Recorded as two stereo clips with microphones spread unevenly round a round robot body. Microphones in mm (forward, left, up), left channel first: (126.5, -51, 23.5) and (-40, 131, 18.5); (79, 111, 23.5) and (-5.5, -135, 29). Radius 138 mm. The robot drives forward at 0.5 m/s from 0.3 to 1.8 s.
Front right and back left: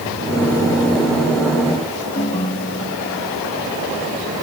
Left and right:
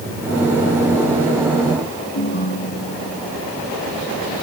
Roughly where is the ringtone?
Ahead.